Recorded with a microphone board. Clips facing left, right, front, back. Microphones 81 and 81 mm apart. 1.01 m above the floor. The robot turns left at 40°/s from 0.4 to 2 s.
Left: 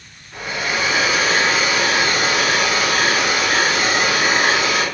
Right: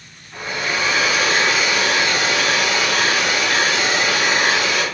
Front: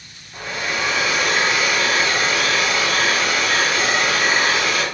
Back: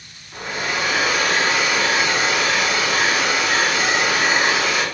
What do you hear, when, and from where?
0.3 s a hair dryer: 175° left, 1.6 m; by 4.8 s 110° left, 1.6 m